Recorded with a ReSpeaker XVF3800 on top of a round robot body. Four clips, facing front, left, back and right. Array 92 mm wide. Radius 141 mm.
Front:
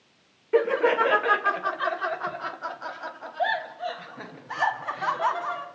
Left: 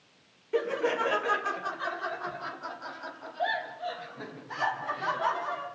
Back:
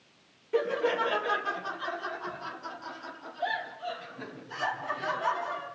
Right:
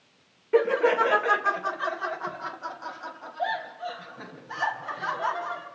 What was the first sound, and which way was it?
Laughter, 45° right.